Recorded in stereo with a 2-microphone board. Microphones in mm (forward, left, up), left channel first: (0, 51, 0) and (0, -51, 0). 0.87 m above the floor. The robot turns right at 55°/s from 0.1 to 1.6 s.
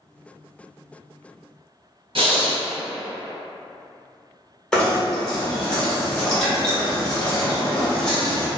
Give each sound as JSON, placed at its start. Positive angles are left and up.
{"t": 2.1, "sound": "breathing", "side_deg": -60, "distance_m": 0.7}
{"t": 4.7, "sound": "knocking", "side_deg": 5, "distance_m": 0.8}